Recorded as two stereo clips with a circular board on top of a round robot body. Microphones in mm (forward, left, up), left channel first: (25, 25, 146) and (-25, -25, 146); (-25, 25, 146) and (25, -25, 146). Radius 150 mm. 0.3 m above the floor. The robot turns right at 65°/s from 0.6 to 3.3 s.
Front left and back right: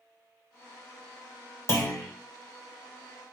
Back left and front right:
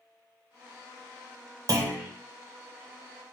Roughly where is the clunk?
Ahead.